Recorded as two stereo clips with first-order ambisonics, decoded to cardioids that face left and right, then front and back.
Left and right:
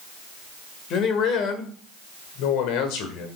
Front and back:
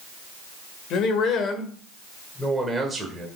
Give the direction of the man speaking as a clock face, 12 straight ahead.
11 o'clock.